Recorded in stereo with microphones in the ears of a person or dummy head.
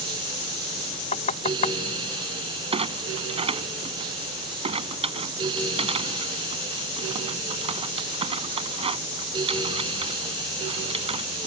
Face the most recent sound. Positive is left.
turn(degrees=-35)  # may be behind; listen again after turning